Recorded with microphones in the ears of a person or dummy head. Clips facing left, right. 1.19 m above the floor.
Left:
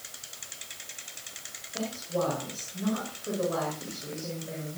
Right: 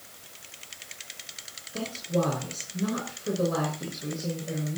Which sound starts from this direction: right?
A woman speaking, at 1.7 s.